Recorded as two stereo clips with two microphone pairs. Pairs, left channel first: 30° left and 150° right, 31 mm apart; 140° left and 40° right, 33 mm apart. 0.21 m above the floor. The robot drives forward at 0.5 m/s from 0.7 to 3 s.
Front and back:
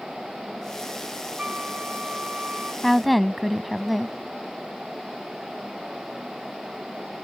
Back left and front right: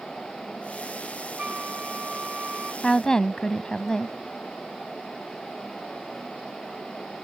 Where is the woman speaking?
110° left; by 4.2 s 120° left.